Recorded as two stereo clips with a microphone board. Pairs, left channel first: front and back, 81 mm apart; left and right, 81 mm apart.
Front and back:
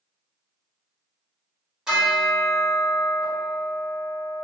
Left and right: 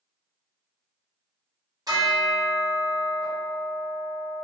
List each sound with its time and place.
1.9 s a bell: 105° right, 1.1 m